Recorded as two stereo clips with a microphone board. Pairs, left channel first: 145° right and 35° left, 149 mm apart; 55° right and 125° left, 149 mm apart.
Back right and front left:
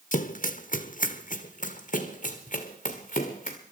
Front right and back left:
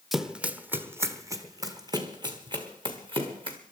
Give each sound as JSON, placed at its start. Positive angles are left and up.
{"t": 0.1, "sound": "running footsteps", "azimuth_deg": -145, "distance_m": 0.9}